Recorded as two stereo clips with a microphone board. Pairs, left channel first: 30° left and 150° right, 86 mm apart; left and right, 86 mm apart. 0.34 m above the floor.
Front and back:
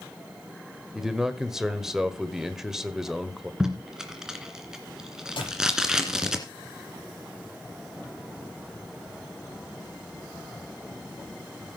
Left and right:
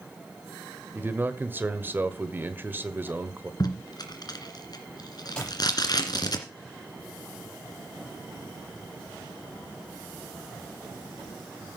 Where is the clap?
10° left, 7.5 m.